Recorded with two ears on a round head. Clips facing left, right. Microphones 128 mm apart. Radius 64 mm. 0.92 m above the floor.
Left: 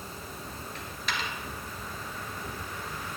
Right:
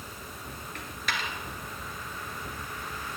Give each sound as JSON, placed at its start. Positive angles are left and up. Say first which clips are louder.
{"t": 0.8, "sound": "a dropped coin", "louder": "right 1 dB", "side_deg": -45, "distance_m": 1.4}